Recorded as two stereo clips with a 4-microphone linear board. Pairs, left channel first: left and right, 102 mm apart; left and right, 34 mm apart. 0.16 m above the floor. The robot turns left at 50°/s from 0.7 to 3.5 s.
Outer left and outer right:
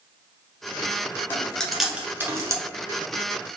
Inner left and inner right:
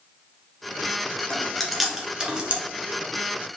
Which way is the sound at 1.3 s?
20° left (ahead or behind).